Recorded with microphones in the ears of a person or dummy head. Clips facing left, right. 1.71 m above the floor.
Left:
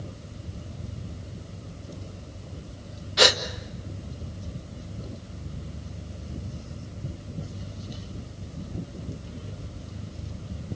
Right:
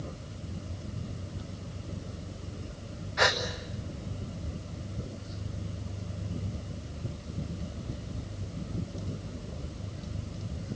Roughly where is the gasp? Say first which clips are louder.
Left 6 dB; left.